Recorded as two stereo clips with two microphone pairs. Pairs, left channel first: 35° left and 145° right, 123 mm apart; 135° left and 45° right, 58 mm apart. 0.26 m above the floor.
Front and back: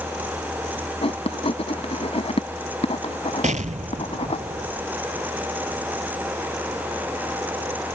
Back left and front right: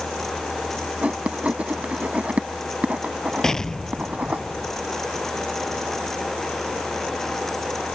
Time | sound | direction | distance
1.0 | writing | 20° left | ?
3.4 | an explosion | 150° right | ?